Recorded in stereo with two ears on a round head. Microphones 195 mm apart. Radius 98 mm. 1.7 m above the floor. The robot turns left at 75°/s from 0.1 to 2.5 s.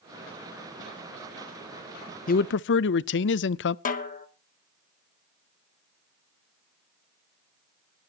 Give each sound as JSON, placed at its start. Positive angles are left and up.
{"t": 2.3, "sound": "a man speaking", "side_deg": 40, "distance_m": 0.5}
{"t": 3.9, "sound": "a snare drum", "side_deg": 40, "distance_m": 1.3}